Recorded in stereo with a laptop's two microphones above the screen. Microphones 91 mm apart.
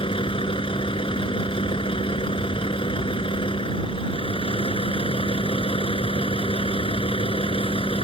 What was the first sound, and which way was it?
A vehicle, 70° left (ahead or behind).